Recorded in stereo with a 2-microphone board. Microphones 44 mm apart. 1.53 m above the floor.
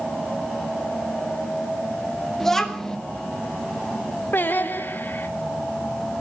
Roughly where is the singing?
Left.